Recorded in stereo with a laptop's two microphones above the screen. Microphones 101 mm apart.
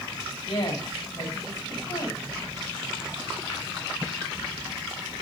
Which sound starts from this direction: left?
A woman speaking, at 0.5 s.